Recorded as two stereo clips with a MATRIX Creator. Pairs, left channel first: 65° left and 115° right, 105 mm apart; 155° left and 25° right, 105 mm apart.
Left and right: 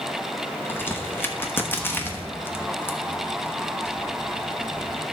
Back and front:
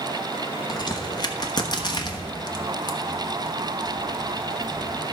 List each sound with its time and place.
0.7 s a crack: 130° left, 1.1 m